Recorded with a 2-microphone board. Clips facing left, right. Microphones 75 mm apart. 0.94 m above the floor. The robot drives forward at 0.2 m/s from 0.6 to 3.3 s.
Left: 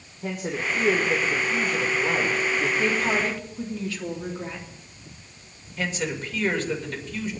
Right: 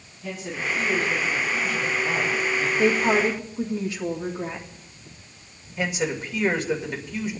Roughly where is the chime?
I don't hear a chime.